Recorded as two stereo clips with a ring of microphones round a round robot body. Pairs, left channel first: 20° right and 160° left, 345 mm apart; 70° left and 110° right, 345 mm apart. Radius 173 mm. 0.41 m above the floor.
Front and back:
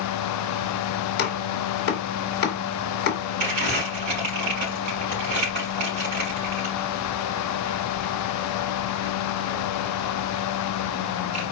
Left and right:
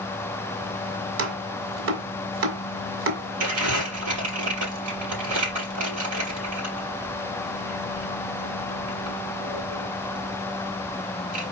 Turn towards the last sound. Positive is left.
turn(degrees=-160)